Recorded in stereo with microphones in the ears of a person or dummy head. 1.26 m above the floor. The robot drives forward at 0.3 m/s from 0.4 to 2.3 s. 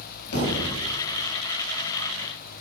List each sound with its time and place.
0.3 s a thud: 60° left (ahead or behind), 3.5 m; by 0.7 s 65° left (ahead or behind), 3.5 m